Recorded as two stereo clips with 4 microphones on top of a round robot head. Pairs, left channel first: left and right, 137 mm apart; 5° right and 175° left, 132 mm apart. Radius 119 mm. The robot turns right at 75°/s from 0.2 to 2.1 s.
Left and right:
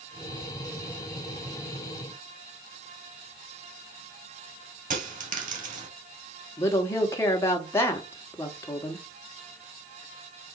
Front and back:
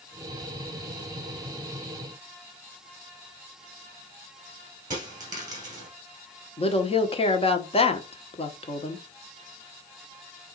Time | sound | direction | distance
4.9 | a dropped coin | 120° right | 2.5 m
6.6 | a woman speaking | 20° left | 1.4 m